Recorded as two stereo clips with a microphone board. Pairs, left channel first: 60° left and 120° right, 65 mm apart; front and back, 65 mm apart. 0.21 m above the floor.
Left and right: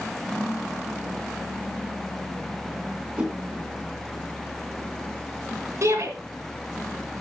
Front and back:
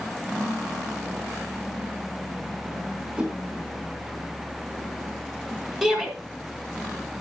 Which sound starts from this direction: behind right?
A whoosh, at 3.2 s.